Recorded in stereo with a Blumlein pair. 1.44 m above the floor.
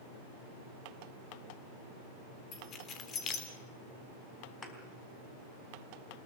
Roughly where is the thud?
Ahead.